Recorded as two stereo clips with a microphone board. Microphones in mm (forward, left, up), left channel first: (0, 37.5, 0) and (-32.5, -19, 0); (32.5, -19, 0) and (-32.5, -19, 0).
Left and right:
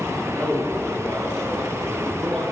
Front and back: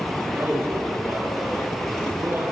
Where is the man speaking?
130° left, 7 m; by 2.4 s 135° left, 9.5 m.